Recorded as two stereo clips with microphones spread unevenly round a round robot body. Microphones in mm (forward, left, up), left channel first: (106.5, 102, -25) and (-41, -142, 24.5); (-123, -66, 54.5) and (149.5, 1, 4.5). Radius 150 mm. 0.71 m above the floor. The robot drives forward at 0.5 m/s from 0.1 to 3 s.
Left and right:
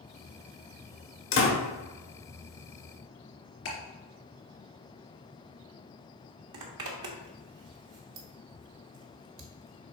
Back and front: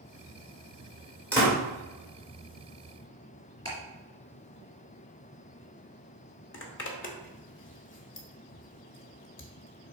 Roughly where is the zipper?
Behind right.